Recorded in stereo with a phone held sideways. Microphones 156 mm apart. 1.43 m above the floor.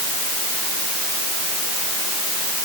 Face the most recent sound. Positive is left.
No sound to turn to.